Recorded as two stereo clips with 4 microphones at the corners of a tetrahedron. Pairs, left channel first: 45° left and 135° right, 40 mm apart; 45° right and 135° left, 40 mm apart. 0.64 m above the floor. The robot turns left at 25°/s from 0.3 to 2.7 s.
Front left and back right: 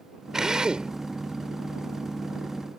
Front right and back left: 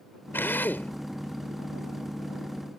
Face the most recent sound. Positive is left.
turn(degrees=-115)